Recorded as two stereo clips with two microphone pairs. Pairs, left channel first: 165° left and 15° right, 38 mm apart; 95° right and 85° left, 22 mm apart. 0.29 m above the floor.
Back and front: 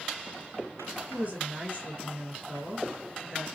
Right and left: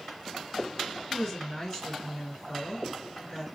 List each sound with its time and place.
1.1 s a woman speaking: 60° right, 2.5 m